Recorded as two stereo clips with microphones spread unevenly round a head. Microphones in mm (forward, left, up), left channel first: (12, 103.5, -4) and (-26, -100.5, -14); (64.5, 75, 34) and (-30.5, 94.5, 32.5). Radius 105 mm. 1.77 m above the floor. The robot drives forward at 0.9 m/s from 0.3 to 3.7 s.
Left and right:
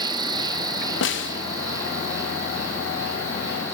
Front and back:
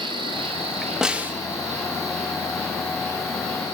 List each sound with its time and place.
0.0 s an insect: 165° right, 0.9 m; by 3.8 s straight behind, 3.5 m
1.0 s a snare drum: 85° left, 1.2 m; by 1.3 s 100° left, 1.2 m